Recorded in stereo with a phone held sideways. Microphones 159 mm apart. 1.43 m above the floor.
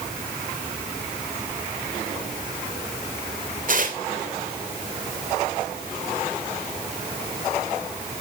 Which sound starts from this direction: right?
Tearing paper, at 3.7 s.